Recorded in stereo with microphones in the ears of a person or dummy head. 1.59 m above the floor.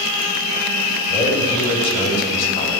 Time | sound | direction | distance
1.1 | a man speaking | 60° left (ahead or behind) | 5.5 m